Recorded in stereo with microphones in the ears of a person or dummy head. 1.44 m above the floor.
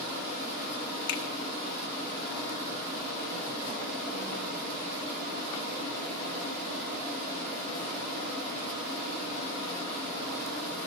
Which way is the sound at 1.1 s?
60° left (ahead or behind).